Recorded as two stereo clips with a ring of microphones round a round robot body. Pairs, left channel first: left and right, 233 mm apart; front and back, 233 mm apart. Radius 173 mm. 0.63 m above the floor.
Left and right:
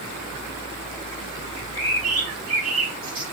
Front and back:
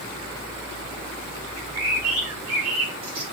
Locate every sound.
1.6 s a bird: 135° right, 4 m